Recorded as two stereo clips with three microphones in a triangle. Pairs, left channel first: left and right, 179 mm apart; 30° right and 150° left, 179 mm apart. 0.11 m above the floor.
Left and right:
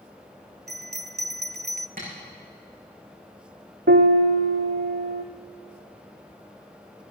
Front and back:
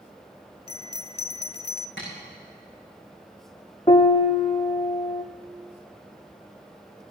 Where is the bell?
85° right, 0.6 m.